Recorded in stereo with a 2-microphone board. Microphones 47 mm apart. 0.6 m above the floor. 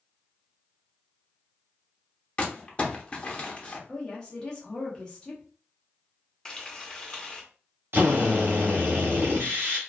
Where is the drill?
55° right (ahead or behind), 1.1 m.